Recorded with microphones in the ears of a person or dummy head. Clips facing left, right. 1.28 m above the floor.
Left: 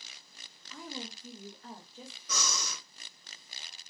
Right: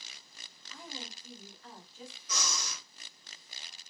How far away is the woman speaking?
About 1.0 m.